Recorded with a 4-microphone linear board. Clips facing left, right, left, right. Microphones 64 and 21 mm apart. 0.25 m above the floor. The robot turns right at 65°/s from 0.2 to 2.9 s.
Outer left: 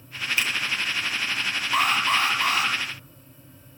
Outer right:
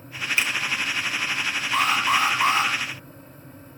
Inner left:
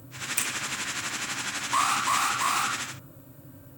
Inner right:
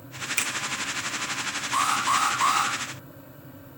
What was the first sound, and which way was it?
A finger snap, 25° right (ahead or behind).